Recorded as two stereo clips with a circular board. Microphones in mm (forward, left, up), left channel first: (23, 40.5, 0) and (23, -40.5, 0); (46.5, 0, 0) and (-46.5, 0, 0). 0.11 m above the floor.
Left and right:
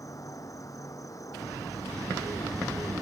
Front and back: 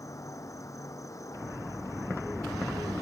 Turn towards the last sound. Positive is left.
turn(degrees=50)